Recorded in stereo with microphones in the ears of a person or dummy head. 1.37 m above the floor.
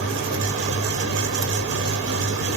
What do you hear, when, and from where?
0.0 s a fan: 75° right (ahead or behind), 1.0 m